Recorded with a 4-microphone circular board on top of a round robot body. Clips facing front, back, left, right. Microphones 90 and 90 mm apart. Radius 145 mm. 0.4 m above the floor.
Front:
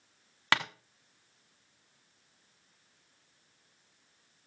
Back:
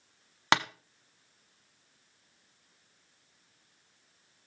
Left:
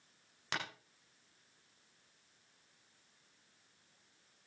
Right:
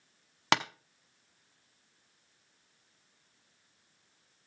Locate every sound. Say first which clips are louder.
0.5 s tapping: back 4 dB, right 13 dB; 110° right, 0.9 m